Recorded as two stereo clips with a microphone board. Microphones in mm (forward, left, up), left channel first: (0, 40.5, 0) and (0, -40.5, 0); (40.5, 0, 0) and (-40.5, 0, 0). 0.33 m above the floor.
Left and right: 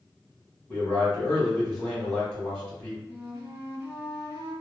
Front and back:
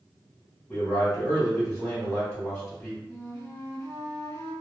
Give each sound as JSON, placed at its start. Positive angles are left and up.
{"t": 0.7, "sound": "a man speaking", "azimuth_deg": 25, "distance_m": 1.5}
{"t": 3.1, "sound": "a flute", "azimuth_deg": -35, "distance_m": 1.9}